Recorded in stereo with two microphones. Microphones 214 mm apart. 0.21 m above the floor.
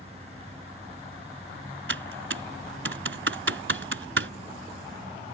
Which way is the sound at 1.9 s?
65° right (ahead or behind).